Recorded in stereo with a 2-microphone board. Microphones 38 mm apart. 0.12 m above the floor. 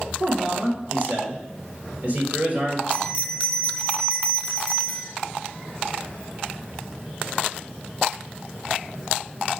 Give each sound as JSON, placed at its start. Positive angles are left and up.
{"t": 0.2, "sound": "a man speaking", "side_deg": -40, "distance_m": 2.0}
{"t": 2.9, "sound": "a bell", "side_deg": -30, "distance_m": 1.7}